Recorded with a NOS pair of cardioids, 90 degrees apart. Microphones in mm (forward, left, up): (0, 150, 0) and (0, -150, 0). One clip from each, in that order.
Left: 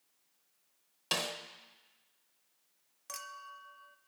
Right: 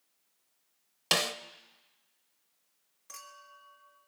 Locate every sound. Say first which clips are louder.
1.1 s a snare drum: right 6 dB; 40° right, 1.0 m
3.1 s a clink: left 4 dB; 45° left, 1.4 m